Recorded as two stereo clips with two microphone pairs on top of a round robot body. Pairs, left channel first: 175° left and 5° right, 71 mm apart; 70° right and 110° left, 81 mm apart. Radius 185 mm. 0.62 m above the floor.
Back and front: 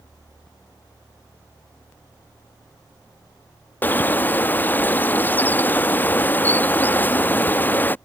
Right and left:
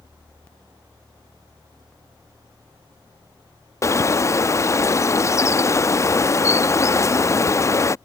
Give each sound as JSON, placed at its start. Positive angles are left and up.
{"t": 3.8, "sound": "a bird", "azimuth_deg": -125}